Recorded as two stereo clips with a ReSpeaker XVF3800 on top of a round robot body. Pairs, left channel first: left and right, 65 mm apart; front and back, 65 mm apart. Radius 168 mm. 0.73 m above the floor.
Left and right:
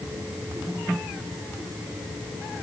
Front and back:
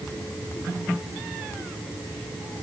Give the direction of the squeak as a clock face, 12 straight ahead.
I don't hear a squeak.